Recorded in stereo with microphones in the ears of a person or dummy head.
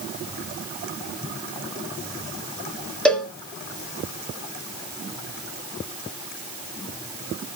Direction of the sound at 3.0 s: 5° left (ahead or behind).